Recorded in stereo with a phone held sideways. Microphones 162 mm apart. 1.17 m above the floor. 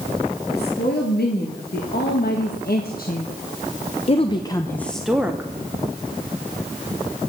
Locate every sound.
0.5 s a woman speaking: 80° left, 2.5 m; by 5.5 s 15° right (ahead or behind), 0.9 m